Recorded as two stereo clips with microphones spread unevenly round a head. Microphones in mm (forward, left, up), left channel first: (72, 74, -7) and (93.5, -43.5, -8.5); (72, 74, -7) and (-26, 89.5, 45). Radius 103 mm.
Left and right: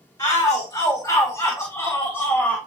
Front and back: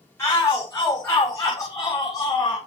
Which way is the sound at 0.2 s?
45° left.